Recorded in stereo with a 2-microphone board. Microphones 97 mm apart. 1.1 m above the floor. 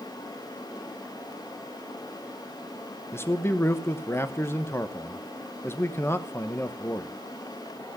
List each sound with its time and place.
3.1 s a man speaking: 25° left (ahead or behind), 1.2 m